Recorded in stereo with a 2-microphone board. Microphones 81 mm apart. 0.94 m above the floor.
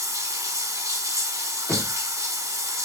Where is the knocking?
25° left (ahead or behind), 0.9 m.